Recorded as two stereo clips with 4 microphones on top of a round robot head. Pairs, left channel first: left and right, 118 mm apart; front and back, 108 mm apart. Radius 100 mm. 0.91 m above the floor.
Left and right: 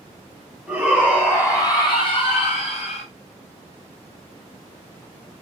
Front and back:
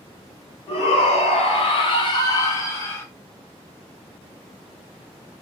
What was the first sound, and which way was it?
A shout, 5° right.